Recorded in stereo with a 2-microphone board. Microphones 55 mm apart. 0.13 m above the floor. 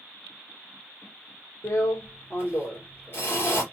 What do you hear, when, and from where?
1.6 s a drill: 45° left (ahead or behind), 3 m